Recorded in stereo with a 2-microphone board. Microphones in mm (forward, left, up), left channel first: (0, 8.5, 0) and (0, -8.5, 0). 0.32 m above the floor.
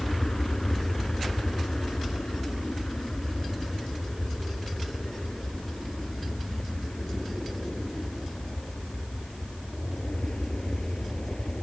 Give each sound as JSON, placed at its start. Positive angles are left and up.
{"t": 0.0, "sound": "an aircraft", "side_deg": 70}